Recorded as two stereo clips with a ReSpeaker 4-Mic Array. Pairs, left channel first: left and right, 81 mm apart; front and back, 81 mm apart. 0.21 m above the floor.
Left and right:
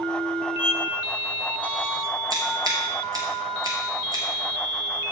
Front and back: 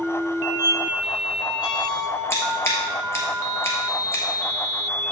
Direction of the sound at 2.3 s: 55° right.